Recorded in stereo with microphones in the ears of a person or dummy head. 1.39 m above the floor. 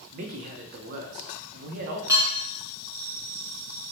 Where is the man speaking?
50° right (ahead or behind), 0.5 m.